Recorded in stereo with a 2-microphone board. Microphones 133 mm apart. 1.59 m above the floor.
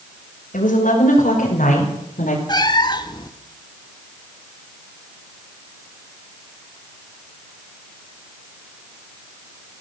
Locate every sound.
0.5 s a woman speaking: 80° left, 6.5 m; by 2.4 s 85° left, 5 m
2.5 s a cat meowing: 30° left (ahead or behind), 1.3 m